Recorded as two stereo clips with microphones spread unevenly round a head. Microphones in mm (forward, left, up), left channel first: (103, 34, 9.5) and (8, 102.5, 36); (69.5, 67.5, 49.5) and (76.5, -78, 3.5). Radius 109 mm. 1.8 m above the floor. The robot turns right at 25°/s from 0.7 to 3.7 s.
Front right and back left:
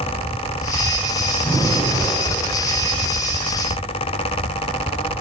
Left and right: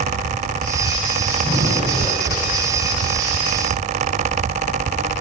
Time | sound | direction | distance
1.4 | breathing | 35° left | 8 m